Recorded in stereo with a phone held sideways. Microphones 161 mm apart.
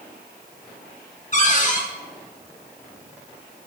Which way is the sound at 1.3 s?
45° left (ahead or behind).